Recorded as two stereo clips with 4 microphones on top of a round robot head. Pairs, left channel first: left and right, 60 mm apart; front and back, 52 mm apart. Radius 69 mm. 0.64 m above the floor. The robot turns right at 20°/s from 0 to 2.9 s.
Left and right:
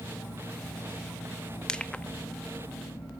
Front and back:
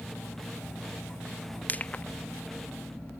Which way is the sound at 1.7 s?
25° left.